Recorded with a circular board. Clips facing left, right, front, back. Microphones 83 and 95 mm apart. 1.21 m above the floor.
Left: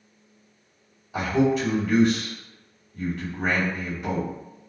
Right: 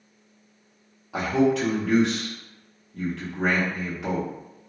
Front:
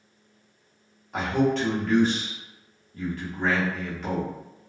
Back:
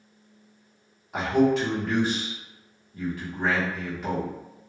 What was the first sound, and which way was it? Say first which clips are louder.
A man speaking: even, back 2 dB; 95° right.